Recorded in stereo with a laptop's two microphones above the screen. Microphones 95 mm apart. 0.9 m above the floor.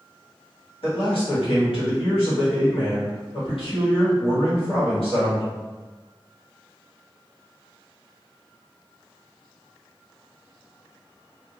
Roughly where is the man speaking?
Left.